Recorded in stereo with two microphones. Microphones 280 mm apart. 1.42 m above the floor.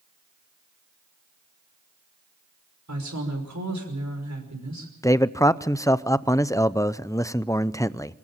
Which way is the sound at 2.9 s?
75° right (ahead or behind).